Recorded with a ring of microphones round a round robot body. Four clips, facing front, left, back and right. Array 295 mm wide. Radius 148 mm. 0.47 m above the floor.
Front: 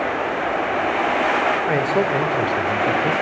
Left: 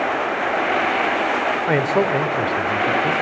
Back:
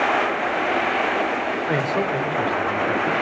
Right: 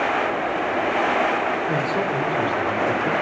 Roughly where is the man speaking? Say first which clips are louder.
Left 4 dB, front 3 dB; left.